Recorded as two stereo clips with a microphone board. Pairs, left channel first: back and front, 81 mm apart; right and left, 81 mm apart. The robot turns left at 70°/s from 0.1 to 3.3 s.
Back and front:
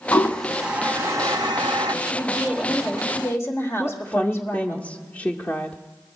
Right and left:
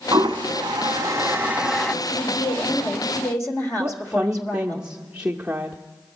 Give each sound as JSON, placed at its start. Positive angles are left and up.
{"t": 0.1, "sound": "a toilet flushing", "azimuth_deg": 120, "distance_m": 0.7}
{"t": 2.0, "sound": "a woman speaking", "azimuth_deg": -45, "distance_m": 1.5}
{"t": 3.8, "sound": "a woman speaking", "azimuth_deg": 150, "distance_m": 0.7}